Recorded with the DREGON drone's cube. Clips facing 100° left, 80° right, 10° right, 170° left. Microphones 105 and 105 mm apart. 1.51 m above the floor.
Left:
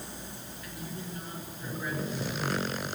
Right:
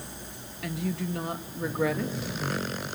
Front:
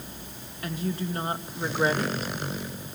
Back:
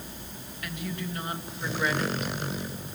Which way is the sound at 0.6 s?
70° right.